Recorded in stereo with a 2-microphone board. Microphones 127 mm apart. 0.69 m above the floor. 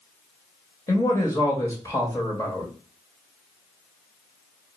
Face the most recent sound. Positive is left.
turn(degrees=25)  # may be behind; listen again after turning